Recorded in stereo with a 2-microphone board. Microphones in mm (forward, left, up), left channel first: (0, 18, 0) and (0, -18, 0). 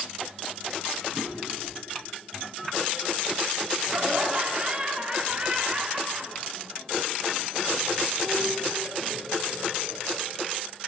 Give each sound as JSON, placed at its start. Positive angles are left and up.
{"t": 1.1, "sound": "a drawer", "side_deg": -15, "distance_m": 6.0}
{"t": 3.8, "sound": "laughter", "side_deg": -25, "distance_m": 3.0}